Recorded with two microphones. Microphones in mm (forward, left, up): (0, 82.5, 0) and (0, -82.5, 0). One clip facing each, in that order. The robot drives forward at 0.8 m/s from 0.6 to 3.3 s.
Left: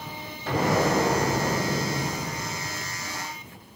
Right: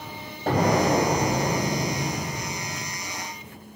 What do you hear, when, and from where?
0.5 s an explosion: 50° right (ahead or behind), 5 m; by 3.0 s 35° right (ahead or behind), 6 m